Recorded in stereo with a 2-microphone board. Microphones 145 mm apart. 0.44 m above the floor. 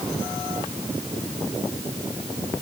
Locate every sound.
Only background noise.